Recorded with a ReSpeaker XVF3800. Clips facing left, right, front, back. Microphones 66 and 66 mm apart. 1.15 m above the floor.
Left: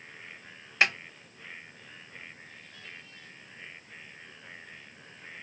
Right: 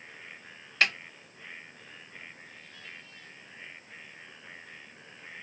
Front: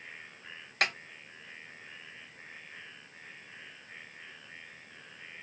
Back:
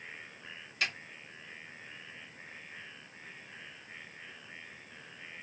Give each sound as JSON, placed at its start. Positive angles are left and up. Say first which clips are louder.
{"t": 0.8, "sound": "a snare drum", "louder": "left 1 dB, front 5 dB", "azimuth_deg": 15, "distance_m": 0.6}